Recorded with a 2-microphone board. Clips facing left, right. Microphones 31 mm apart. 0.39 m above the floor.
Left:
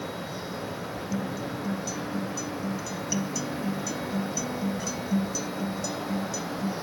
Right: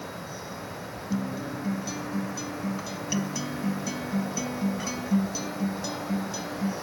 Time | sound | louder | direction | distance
1.1 | a guitar | right 2 dB | 25° right (ahead or behind) | 0.7 m